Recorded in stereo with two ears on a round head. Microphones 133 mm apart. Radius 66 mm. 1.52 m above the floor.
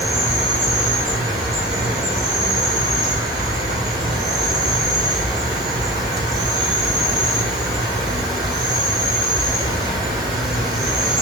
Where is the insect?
25° right (ahead or behind), 0.9 m.